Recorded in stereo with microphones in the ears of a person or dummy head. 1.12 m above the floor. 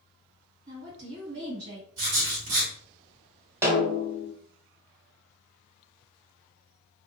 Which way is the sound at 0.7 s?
75° right (ahead or behind).